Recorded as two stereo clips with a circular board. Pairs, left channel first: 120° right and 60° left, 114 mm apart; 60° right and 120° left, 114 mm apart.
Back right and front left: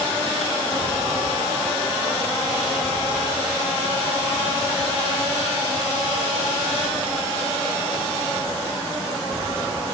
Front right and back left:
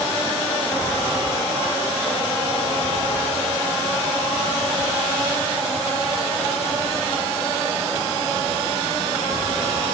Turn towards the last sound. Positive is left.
No sound to turn to.